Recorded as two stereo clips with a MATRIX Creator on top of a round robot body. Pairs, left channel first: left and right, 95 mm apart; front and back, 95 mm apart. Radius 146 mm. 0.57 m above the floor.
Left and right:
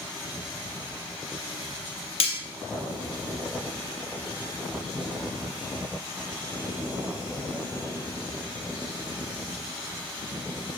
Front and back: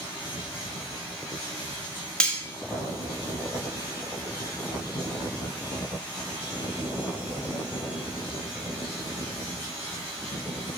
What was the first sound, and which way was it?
Cutlery clinking, 80° left.